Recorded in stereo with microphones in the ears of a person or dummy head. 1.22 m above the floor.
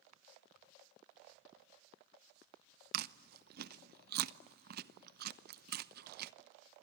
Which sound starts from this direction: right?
Chewing, at 2.9 s.